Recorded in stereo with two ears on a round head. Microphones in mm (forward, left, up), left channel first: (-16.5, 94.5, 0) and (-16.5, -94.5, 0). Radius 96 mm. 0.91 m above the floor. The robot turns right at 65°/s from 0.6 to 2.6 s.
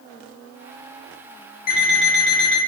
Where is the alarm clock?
40° left, 1.2 m; by 2.6 s 100° left, 1.2 m.